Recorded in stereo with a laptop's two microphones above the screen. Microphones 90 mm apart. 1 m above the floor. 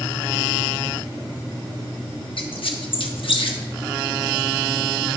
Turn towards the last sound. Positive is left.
turn(degrees=70)  # may be behind; listen again after turning